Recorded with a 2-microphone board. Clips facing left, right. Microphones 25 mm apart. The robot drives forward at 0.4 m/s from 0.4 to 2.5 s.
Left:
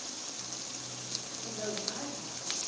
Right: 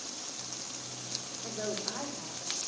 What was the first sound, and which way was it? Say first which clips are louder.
A woman speaking: right 2 dB; 30° right (ahead or behind).